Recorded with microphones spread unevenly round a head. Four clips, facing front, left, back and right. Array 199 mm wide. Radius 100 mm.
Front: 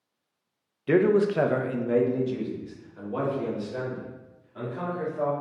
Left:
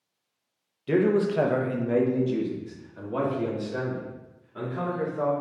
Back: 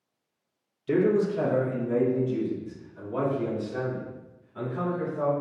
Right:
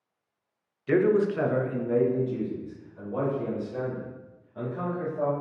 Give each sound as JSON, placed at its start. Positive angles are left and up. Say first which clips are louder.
{"t": 0.9, "sound": "a man speaking", "louder": "even, front 2 dB", "azimuth_deg": 5, "distance_m": 0.6}